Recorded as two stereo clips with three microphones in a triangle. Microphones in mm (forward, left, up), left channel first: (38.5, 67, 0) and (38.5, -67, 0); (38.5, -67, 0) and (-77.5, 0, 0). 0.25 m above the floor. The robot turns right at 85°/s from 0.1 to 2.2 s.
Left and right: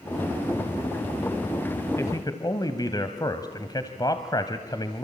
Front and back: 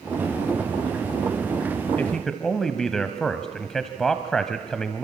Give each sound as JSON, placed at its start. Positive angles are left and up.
{"t": 2.0, "sound": "a man speaking", "azimuth_deg": 35, "distance_m": 1.4}